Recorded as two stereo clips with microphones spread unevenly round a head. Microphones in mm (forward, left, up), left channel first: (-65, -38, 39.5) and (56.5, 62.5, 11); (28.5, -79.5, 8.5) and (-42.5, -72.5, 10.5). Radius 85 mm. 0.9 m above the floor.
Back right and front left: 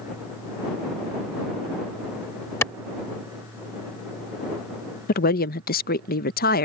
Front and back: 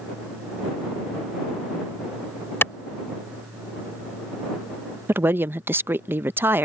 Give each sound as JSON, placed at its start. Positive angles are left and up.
{"t": 2.6, "sound": "a clap", "azimuth_deg": -65}
{"t": 5.1, "sound": "a woman speaking", "azimuth_deg": -135}